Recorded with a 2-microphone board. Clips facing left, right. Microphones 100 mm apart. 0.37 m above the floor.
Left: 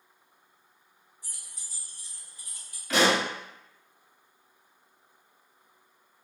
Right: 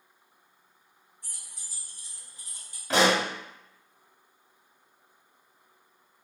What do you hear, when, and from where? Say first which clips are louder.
1.2 s keys jangling: right 1 dB; 5° left (ahead or behind), 0.9 m; by 2.8 s 30° right (ahead or behind), 1.0 m
2.9 s a pop: right 1 dB; 30° right (ahead or behind), 0.7 m